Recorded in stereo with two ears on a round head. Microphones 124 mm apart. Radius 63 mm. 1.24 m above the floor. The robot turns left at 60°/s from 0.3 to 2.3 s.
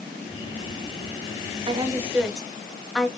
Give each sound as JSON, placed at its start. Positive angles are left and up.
{"t": 1.7, "sound": "a woman speaking", "side_deg": -40, "distance_m": 0.6}